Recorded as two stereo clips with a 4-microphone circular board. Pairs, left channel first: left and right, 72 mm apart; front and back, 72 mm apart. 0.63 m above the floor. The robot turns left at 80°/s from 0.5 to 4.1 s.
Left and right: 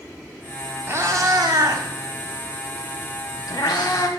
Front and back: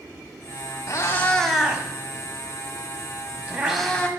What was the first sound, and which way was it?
A cat meowing, 35° right.